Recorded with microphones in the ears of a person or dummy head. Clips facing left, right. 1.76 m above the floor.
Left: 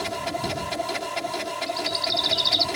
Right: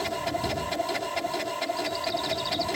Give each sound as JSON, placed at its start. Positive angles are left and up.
{"t": 0.0, "sound": "a machine running", "side_deg": 0}
{"t": 1.7, "sound": "a bird", "side_deg": 45}